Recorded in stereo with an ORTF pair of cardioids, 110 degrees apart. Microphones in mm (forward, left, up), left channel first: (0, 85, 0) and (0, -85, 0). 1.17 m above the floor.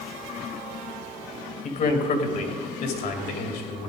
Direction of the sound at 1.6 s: 50° left.